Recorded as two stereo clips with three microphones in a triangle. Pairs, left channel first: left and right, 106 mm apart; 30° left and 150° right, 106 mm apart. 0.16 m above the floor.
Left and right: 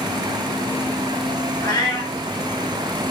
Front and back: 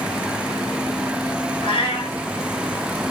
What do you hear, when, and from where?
1.6 s a cat meowing: 35° left, 1.4 m